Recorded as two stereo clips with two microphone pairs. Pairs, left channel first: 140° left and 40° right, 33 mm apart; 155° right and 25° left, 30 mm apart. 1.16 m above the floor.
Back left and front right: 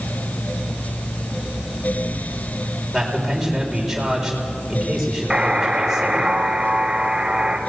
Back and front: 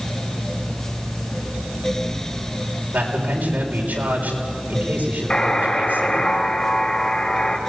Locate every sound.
2.9 s a man speaking: 45° left, 4.5 m
5.3 s a buzzer: 105° right, 2.5 m